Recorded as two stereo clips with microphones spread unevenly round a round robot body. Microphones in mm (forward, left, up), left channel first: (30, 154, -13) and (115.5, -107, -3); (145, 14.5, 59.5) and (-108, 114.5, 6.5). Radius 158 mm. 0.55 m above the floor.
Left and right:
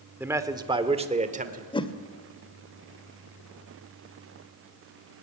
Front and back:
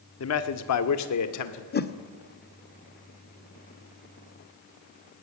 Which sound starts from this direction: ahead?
A man speaking, at 0.2 s.